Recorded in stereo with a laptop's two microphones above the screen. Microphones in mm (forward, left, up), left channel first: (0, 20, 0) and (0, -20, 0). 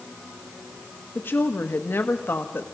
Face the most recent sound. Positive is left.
turn(degrees=65)  # may be behind; listen again after turning